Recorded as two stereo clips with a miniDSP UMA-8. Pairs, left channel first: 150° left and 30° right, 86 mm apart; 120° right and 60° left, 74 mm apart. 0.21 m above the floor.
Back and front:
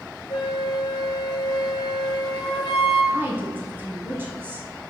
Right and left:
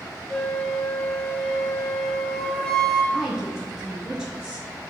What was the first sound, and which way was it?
A flute, 160° left.